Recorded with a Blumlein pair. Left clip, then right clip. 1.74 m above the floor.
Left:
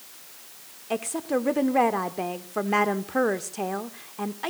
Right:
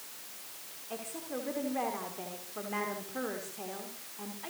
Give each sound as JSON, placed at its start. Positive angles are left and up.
{"t": 0.9, "sound": "a woman speaking", "azimuth_deg": 35, "distance_m": 1.2}